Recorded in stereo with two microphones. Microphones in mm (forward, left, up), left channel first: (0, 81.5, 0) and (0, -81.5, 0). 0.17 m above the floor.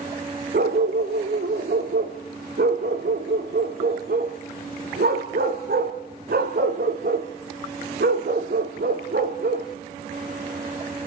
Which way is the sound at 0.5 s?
75° right (ahead or behind).